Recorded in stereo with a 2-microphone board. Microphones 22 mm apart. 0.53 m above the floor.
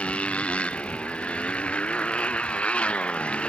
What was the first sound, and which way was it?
A motorcycle, 90° left.